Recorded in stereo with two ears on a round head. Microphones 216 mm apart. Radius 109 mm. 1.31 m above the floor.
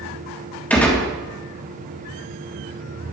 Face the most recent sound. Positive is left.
turn(degrees=5)  # may be behind; listen again after turning